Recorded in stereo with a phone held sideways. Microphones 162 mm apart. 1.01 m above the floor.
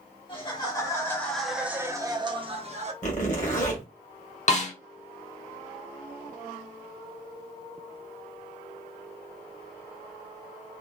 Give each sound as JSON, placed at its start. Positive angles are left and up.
{"t": 0.3, "sound": "laughter", "side_deg": 30, "distance_m": 1.0}
{"t": 3.0, "sound": "a zipper", "side_deg": 50, "distance_m": 1.3}
{"t": 4.5, "sound": "a snare drum", "side_deg": 45, "distance_m": 0.7}